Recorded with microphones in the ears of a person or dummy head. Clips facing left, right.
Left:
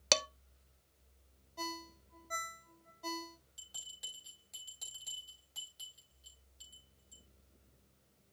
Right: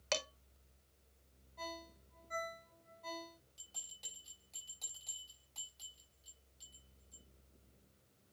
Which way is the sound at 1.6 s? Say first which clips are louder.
Left 3 dB; 55° left (ahead or behind).